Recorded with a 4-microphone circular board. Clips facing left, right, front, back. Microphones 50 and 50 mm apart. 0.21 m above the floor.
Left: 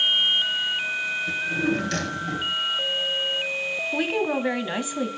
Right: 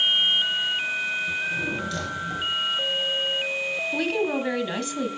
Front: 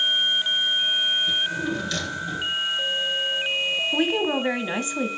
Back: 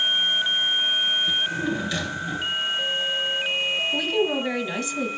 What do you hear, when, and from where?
1.3 s a drawer: 110° left, 1.9 m
3.9 s a woman speaking: 25° left, 1.3 m